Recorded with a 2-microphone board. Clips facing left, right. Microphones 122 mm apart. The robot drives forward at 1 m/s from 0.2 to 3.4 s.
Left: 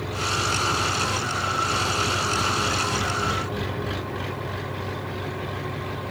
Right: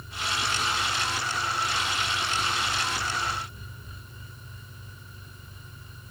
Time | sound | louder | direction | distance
0.0 | an engine running | left 6 dB | 80° left | ?